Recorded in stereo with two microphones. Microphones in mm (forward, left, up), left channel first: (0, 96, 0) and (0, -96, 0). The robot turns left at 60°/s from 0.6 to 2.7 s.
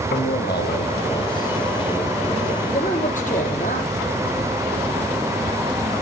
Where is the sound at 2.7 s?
40° left (ahead or behind), 4.5 m.